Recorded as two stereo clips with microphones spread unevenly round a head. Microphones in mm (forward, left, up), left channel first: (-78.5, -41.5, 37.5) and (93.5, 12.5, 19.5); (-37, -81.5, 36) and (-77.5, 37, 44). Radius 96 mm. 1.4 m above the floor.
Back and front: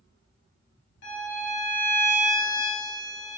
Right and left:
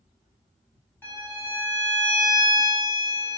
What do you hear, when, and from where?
1.0 s a violin: 145° right, 1.5 m